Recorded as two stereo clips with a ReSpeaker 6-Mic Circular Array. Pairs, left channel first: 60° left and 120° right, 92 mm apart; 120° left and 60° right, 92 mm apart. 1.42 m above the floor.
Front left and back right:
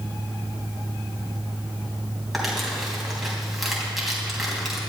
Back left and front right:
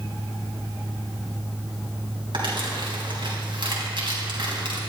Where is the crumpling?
30° right, 3.5 m.